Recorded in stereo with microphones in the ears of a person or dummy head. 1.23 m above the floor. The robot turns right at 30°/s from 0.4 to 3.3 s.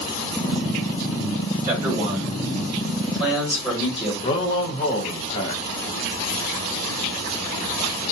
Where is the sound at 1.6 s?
30° right, 1.5 m; by 4.1 s 20° left, 1.5 m.